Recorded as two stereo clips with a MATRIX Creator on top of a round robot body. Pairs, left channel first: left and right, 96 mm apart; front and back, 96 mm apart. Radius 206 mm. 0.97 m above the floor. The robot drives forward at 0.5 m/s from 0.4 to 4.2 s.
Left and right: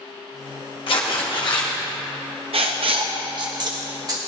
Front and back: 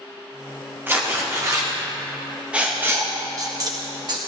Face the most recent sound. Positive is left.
turn(degrees=-140)